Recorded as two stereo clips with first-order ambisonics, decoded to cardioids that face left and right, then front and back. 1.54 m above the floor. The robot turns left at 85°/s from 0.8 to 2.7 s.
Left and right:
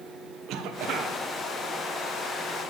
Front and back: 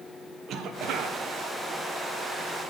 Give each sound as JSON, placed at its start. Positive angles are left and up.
{"t": 0.5, "sound": "a cough", "azimuth_deg": -130, "distance_m": 1.3}